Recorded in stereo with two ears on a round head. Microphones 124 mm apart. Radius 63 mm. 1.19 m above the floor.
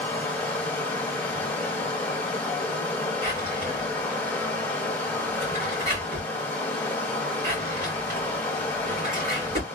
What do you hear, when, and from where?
0.0 s running water: 15° left (ahead or behind), 1.1 m
3.2 s a drawer: 65° right (ahead or behind), 2 m